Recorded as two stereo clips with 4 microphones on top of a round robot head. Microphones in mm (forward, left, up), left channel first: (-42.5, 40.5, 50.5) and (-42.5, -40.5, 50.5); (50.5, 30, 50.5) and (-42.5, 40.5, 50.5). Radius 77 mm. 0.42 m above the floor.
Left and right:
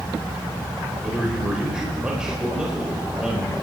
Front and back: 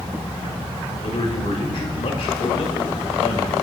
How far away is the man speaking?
About 4.5 m.